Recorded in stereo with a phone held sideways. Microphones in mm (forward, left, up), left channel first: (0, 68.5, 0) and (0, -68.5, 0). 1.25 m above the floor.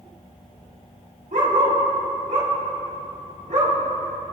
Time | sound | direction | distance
1.3 | a dog barking | 80° right | 6 m